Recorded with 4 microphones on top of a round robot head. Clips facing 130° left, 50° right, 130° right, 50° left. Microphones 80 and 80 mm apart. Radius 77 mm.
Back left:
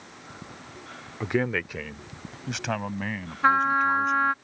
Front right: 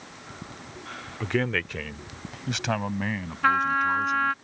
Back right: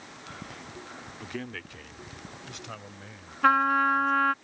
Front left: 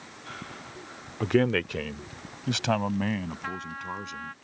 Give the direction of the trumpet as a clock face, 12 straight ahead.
5 o'clock.